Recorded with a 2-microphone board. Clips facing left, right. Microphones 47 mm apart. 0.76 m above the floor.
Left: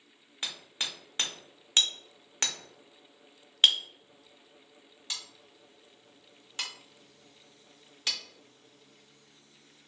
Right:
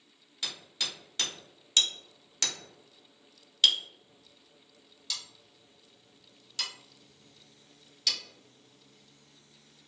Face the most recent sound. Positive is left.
turn(degrees=30)  # may be behind; listen again after turning